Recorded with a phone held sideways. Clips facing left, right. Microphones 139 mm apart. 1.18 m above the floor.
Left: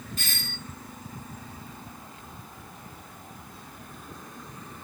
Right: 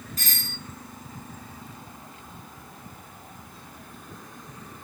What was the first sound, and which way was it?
A doorbell, 40° right (ahead or behind).